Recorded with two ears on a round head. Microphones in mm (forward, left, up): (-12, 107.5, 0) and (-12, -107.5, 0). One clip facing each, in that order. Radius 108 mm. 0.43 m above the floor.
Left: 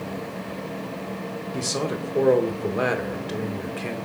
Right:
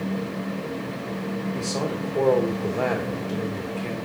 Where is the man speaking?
20° left (ahead or behind), 1.0 m.